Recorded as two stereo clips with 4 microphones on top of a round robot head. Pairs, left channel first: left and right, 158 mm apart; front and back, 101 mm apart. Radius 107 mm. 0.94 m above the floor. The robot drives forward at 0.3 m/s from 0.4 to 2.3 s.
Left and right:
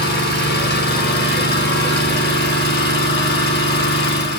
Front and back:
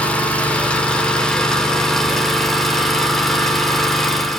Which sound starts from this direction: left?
An engine running, at 0.0 s.